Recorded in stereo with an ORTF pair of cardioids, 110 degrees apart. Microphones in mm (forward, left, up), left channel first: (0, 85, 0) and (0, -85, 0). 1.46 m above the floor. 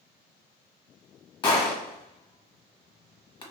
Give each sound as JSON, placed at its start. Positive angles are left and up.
{"t": 1.4, "sound": "a gunshot", "azimuth_deg": 25, "distance_m": 1.2}